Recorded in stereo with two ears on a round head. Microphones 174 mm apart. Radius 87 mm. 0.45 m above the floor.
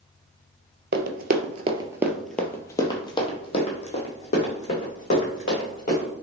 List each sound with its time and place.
0.9 s running footsteps: 60° right (ahead or behind), 0.7 m; by 6.1 s 45° left (ahead or behind), 2.5 m